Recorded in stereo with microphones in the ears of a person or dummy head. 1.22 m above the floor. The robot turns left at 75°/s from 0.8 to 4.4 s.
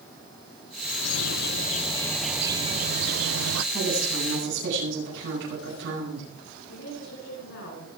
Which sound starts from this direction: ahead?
A woman speaking, at 3.7 s.